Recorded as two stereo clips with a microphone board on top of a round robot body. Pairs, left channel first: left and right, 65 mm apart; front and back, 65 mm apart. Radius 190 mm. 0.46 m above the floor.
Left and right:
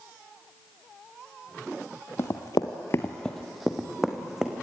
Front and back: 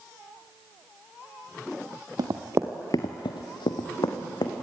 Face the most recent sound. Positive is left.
turn(degrees=-5)